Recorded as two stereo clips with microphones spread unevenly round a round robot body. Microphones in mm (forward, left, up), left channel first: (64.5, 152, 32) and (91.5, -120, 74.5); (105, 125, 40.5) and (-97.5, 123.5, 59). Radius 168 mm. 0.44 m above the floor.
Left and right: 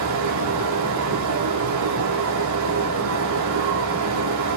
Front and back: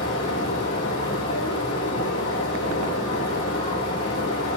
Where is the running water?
65° right, 7.5 m.